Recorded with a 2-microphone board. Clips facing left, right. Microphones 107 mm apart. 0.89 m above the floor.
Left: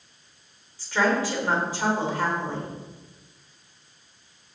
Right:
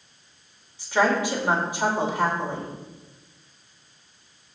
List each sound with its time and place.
0.8 s a woman speaking: 15° right (ahead or behind), 4 m